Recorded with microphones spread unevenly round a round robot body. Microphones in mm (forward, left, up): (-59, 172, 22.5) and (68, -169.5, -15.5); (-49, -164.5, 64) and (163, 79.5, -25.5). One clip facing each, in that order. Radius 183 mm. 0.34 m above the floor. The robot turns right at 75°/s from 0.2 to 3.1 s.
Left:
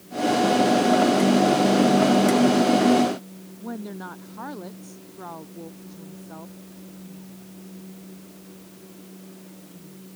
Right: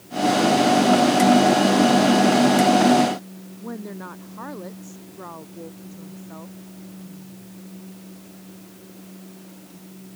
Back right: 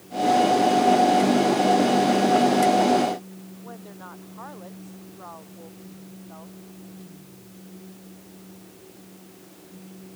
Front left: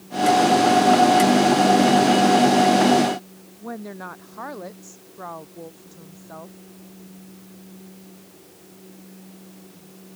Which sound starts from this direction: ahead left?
A woman speaking, at 3.6 s.